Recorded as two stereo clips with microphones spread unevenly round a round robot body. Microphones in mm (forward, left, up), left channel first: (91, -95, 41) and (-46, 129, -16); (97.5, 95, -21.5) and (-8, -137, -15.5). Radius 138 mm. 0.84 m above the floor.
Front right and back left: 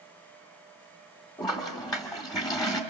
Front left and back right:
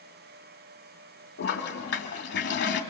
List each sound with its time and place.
1.4 s a toilet flushing: 20° left, 2.5 m